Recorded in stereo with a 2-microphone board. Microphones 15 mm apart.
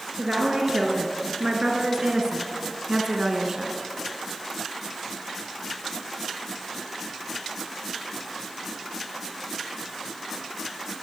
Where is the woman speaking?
60° right (ahead or behind), 5 m; by 3.8 s 30° right (ahead or behind), 3 m.